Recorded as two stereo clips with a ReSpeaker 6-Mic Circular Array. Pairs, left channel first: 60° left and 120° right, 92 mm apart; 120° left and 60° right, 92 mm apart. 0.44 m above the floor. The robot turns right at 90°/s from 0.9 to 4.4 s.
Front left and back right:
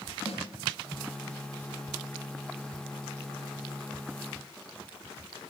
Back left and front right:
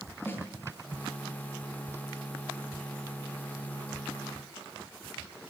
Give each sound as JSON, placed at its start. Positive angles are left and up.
{"t": 0.2, "sound": "a snare drum", "azimuth_deg": 50, "distance_m": 9.5}